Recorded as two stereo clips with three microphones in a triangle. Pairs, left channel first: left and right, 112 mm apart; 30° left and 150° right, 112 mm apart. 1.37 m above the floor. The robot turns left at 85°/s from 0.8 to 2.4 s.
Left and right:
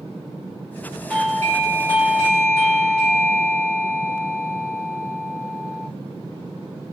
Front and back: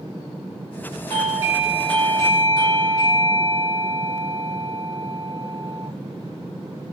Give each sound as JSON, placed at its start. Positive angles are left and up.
{"t": 1.1, "sound": "a doorbell", "azimuth_deg": 180, "distance_m": 2.5}